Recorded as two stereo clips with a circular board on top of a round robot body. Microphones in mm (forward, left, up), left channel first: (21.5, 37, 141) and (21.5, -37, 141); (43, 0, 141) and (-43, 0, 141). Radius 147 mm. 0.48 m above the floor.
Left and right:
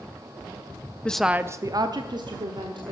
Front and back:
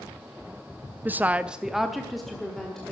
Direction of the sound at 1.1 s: 140° left.